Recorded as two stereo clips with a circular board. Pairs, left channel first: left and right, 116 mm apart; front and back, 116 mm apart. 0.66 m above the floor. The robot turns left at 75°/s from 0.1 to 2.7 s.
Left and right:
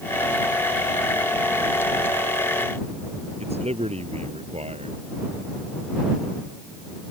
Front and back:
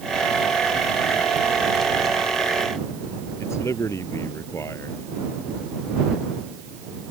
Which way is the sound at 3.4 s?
65° right.